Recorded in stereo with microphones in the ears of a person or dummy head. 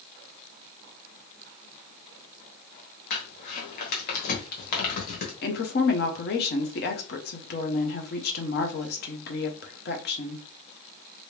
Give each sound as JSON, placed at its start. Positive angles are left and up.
{"t": 3.1, "sound": "crumpling", "side_deg": 55, "distance_m": 1.2}
{"t": 5.4, "sound": "a woman speaking", "side_deg": 45, "distance_m": 0.8}